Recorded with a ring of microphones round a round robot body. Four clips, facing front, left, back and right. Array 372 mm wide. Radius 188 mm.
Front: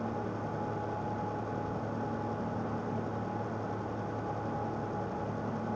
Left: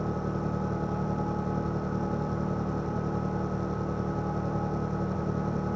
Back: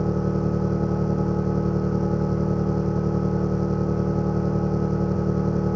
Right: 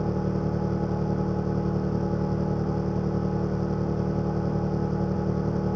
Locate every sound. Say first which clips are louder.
0.0 s an engine running: right 4 dB, back 11 dB; 165° right